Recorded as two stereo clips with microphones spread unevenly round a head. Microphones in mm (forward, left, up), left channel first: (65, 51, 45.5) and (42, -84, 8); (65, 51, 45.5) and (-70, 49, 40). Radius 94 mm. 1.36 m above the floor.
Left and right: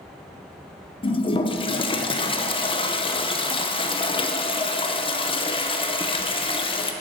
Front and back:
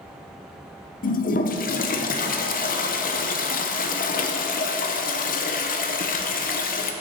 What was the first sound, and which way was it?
A toilet flushing, 25° left.